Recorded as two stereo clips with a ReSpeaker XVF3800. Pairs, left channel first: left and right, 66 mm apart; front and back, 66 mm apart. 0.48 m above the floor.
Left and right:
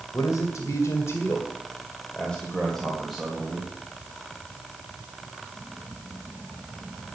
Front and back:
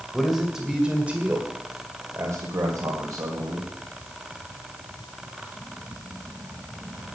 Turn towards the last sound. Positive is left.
turn(degrees=-170)